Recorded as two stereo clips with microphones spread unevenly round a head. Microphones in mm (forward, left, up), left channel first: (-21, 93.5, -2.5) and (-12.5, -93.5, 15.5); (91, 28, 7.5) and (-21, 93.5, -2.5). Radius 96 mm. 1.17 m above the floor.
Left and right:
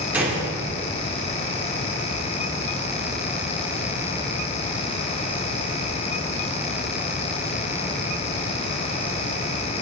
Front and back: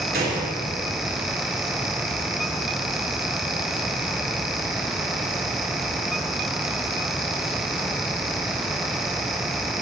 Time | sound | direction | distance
0.1 | a gunshot | 170° right | 2.5 m